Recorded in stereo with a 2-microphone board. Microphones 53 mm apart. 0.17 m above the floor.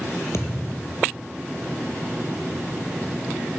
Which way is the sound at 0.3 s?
55° left (ahead or behind).